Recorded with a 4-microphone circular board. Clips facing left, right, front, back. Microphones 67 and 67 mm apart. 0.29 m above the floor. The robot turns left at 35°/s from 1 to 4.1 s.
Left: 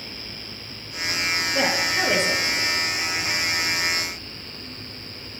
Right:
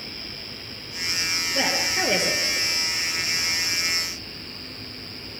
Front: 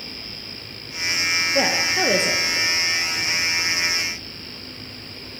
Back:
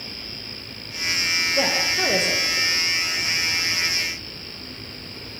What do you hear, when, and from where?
1.6 s a woman speaking: 10° left, 6.5 m; by 2.7 s 30° right, 6.5 m